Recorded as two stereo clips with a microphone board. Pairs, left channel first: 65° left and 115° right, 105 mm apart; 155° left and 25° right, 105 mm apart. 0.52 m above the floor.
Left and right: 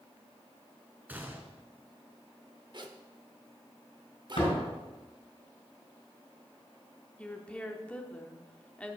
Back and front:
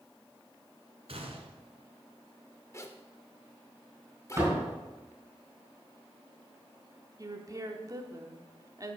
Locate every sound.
1.1 s a gunshot: 40° right, 1.4 m
2.7 s a zipper: 145° right, 0.8 m
4.4 s a door slam: 45° left, 3.5 m
7.2 s a woman speaking: 5° right, 1.0 m